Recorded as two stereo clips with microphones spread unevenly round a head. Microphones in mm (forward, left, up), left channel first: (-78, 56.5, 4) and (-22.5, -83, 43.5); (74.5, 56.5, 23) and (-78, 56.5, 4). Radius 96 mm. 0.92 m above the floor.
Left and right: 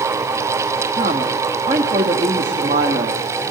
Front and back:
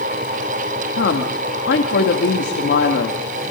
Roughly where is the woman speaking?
Ahead.